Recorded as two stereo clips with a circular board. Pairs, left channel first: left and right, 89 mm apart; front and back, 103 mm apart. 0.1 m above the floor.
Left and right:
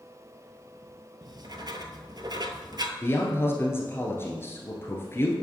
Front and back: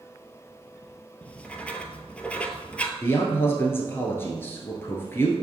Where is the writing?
75° right, 0.7 m.